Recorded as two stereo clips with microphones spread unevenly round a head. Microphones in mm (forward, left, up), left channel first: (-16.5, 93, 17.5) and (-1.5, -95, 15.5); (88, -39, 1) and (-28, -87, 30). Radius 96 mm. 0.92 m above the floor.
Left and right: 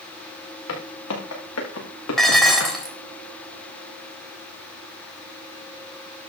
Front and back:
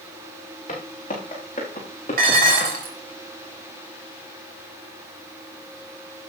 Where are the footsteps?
85° left, 6.5 m.